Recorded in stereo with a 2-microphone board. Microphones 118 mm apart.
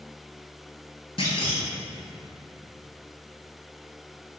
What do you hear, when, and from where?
1.2 s a clunk: 50° left (ahead or behind), 1.4 m